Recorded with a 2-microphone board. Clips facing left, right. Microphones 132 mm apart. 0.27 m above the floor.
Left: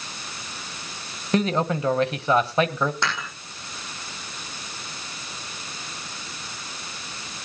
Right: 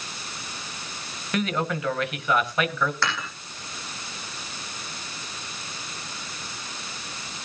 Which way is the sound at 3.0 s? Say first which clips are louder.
Even; 20° left (ahead or behind).